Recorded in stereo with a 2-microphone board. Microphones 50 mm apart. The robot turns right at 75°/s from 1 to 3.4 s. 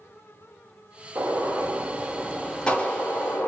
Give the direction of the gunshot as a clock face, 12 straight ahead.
3 o'clock.